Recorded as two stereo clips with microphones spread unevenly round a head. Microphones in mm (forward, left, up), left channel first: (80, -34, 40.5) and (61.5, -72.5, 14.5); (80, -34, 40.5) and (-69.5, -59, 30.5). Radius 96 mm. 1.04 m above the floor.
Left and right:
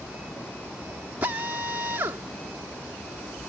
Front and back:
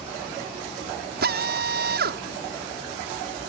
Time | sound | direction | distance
1.2 | a drill | 170° right | ?